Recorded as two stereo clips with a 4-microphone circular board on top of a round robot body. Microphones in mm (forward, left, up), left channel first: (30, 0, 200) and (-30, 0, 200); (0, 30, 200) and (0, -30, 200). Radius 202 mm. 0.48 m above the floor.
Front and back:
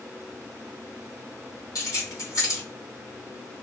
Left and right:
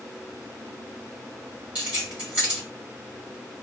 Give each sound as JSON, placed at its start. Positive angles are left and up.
{"t": 1.8, "sound": "keys jangling", "azimuth_deg": -20, "distance_m": 2.0}